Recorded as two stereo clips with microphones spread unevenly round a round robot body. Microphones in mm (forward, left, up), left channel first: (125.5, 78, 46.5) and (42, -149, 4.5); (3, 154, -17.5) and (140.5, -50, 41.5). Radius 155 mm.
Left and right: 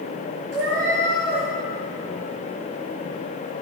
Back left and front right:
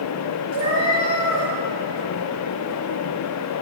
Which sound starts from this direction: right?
A cat meowing, at 0.5 s.